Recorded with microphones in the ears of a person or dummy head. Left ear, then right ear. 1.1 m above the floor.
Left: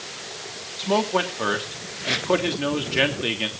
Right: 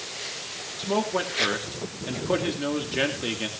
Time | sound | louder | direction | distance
0.8 | a man speaking | left 4 dB | 25° left (ahead or behind) | 3 m